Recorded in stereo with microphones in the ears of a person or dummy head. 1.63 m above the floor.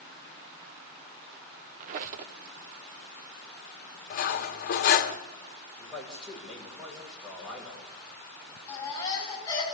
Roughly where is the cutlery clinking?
Left.